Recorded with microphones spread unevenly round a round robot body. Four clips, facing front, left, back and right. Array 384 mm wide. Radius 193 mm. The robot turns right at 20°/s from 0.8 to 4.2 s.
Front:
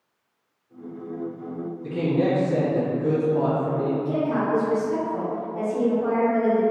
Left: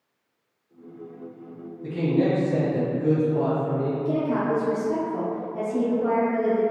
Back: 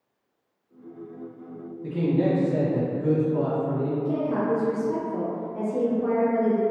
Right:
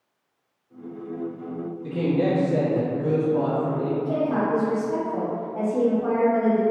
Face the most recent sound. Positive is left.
turn(degrees=160)